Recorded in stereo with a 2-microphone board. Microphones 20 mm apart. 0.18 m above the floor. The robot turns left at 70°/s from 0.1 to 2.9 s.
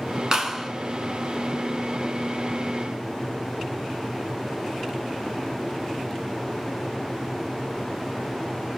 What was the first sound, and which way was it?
A clap, 25° right (ahead or behind).